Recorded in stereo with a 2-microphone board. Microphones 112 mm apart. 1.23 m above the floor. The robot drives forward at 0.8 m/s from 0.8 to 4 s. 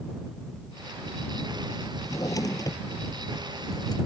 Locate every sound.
2.0 s a drawer: 30° left (ahead or behind); by 4.0 s 35° left (ahead or behind)